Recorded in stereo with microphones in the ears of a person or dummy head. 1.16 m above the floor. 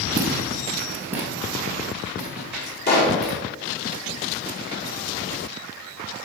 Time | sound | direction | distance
0.2 | footsteps | 25° right (ahead or behind) | 2.5 m
2.9 | a pop | 60° left (ahead or behind) | 3.5 m